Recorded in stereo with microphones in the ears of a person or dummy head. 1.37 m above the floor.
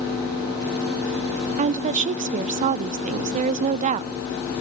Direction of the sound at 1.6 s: 40° right (ahead or behind).